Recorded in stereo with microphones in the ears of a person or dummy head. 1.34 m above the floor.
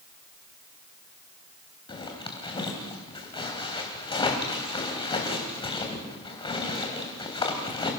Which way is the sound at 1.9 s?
25° left (ahead or behind).